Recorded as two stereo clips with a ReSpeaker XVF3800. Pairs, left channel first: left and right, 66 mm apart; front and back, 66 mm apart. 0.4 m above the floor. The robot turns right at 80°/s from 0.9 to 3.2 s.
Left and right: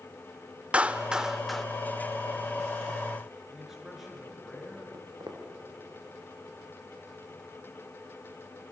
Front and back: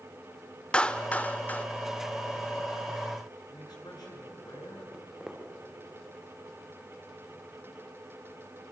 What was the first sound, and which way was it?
A clap, 45° right.